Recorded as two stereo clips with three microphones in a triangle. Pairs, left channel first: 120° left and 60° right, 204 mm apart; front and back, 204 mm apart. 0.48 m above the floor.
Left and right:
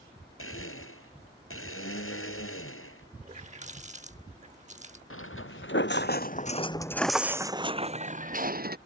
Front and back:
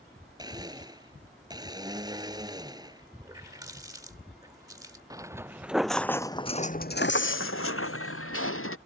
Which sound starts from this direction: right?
A running tap, at 3.2 s.